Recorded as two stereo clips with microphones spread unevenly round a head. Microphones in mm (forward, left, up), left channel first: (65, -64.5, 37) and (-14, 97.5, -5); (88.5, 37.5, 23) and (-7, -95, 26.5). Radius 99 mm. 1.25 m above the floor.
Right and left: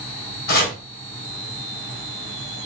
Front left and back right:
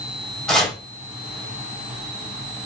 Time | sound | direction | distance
0.5 | chopping | 35° right | 4 m